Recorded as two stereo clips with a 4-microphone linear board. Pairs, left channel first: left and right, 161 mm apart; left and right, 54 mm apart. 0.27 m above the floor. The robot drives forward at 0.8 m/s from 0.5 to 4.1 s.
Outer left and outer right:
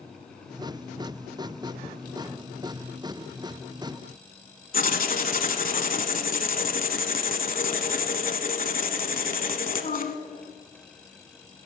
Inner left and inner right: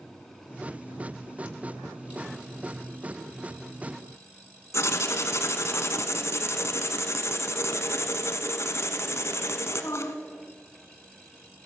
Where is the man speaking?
I don't hear a man speaking.